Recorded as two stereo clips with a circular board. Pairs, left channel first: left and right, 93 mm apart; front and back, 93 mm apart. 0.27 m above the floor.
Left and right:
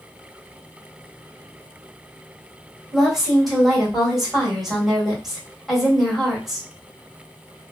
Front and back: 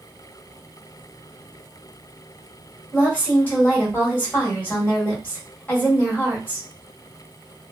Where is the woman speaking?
5° right, 1.6 m.